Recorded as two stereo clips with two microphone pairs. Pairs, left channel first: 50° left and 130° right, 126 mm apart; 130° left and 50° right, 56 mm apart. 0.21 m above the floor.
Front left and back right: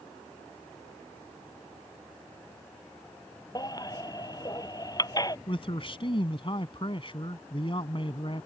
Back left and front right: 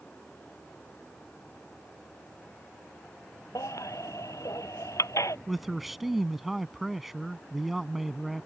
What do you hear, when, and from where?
3.5 s a baby crying: 110° left
5.5 s a man speaking: 35° left